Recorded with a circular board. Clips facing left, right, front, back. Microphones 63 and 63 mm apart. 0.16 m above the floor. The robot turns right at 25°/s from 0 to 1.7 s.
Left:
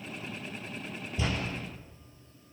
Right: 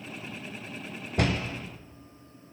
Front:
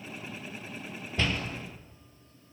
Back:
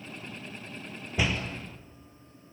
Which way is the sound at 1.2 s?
105° right.